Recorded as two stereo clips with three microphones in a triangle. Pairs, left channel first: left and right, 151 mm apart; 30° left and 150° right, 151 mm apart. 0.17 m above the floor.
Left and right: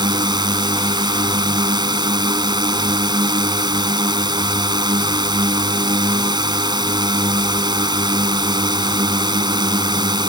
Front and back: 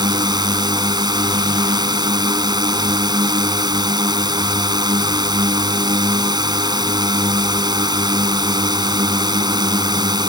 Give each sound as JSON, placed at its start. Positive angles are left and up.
{"t": 0.0, "sound": "a drone", "azimuth_deg": -120}